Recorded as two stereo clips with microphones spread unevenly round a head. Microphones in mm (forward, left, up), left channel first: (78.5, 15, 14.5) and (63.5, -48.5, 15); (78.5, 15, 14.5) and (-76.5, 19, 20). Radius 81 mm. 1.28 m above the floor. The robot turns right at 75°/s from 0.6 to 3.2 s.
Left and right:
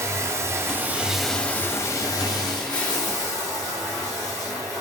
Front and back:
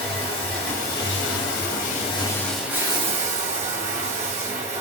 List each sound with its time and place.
0.0 s running water: 60° right, 0.7 m; by 4.8 s 135° left, 0.7 m